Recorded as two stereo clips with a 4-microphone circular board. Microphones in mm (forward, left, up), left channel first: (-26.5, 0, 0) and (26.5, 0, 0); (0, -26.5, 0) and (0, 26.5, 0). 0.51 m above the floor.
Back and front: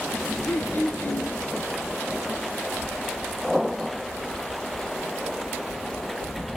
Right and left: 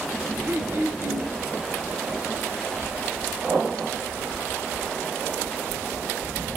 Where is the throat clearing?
130° left, 1.9 m.